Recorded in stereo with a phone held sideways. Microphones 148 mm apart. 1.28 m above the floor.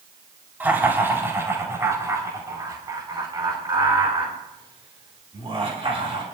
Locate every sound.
0.6 s laughter: 10° right (ahead or behind), 4 m; by 6.2 s 40° right (ahead or behind), 6 m